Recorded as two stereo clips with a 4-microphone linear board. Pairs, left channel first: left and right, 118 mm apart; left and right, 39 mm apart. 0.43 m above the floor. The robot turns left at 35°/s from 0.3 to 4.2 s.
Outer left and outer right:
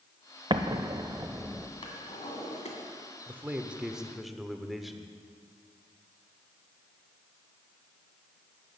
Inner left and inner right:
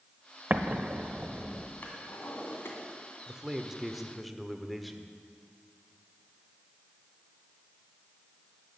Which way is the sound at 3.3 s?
145° right.